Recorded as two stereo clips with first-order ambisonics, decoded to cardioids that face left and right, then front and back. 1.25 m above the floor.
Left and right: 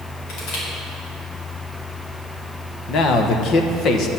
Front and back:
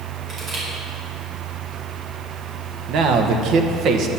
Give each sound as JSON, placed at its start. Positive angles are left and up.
{"t": 0.3, "sound": "crushing", "azimuth_deg": 115, "distance_m": 5.0}
{"t": 2.9, "sound": "a man speaking", "azimuth_deg": 135, "distance_m": 1.2}